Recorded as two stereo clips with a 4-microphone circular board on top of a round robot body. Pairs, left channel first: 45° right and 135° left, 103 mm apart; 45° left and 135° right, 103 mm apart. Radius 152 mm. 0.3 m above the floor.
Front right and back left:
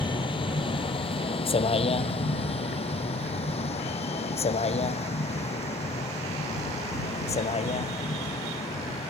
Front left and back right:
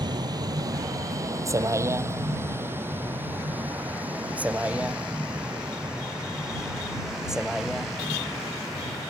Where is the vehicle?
85° right; by 9.1 s 45° right.